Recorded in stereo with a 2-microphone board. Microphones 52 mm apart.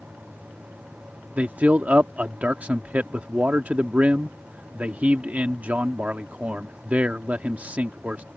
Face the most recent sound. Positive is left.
turn(degrees=-30)  # may be behind; listen again after turning